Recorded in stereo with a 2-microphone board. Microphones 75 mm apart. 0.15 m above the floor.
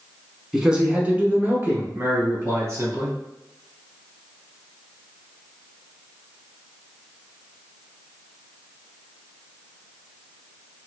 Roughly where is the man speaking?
Centre.